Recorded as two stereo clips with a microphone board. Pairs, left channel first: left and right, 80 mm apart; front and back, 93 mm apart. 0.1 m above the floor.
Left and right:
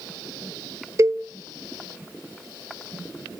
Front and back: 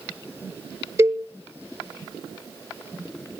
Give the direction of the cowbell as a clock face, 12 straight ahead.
4 o'clock.